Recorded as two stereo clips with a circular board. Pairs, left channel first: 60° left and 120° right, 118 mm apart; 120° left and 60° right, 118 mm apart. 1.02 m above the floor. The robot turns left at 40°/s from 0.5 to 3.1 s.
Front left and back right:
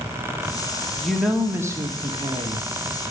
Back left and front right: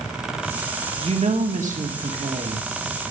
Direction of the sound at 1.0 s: 25° right.